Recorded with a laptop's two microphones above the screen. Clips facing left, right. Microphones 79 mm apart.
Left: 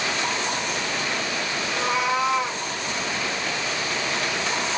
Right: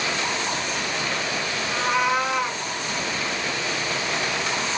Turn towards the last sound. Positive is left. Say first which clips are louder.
# right 2 dB
turn(degrees=-55)  # may be behind; listen again after turning